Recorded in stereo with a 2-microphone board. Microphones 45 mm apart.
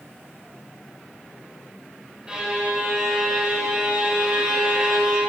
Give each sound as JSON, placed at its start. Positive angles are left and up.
{"t": 2.3, "sound": "a violin", "side_deg": -20, "distance_m": 2.0}